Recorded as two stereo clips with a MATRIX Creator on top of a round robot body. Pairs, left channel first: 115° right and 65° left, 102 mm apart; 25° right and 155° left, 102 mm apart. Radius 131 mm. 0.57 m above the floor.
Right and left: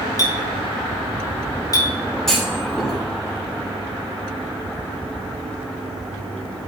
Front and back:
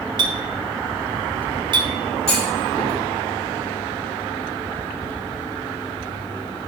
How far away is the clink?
About 1.3 m.